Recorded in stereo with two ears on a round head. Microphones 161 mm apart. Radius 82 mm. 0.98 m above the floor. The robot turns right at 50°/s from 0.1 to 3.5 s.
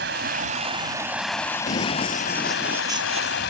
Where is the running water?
60° right; by 3.5 s 110° left.